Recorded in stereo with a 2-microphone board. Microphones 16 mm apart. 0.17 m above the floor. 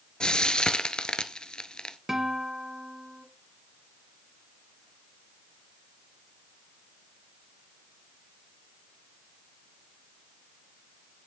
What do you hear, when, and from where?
0.2 s frying: 70° left (ahead or behind), 0.9 m
2.1 s a guitar: 30° right (ahead or behind), 1.8 m